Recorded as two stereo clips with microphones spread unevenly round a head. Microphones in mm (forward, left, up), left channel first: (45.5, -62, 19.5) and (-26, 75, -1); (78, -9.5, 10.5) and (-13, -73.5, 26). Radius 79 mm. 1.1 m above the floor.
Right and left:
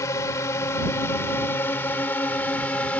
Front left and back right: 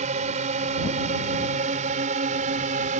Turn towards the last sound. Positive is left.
turn(degrees=-145)